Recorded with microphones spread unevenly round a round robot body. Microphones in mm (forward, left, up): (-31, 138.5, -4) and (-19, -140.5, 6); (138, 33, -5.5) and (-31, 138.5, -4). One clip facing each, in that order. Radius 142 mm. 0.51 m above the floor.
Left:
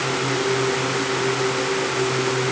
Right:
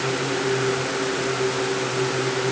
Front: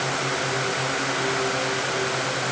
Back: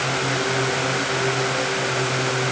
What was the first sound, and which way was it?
Only background noise.